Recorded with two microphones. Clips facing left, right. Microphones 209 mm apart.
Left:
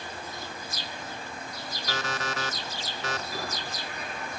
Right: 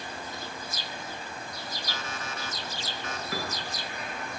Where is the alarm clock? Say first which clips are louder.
Left 9 dB; 85° left, 0.9 m.